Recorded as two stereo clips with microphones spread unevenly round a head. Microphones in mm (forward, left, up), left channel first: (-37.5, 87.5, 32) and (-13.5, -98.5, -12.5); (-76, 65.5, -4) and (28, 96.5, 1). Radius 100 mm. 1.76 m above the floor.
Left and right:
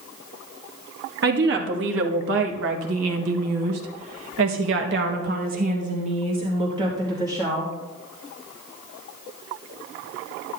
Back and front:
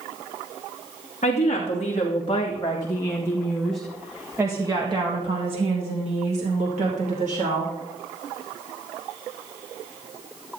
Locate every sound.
1.2 s a woman speaking: 115° right, 2.5 m; by 7.7 s straight ahead, 2.5 m